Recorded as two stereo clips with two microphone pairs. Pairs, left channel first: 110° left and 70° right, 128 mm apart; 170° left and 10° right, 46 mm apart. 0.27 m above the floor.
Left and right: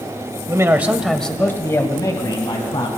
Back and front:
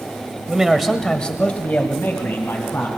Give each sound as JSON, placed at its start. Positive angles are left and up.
{"t": 0.5, "sound": "a man speaking", "azimuth_deg": -65, "distance_m": 1.7}